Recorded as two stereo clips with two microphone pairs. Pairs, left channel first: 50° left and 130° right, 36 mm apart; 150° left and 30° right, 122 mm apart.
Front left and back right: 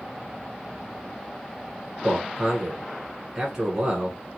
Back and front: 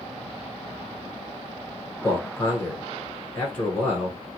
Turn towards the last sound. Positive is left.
turn(degrees=-175)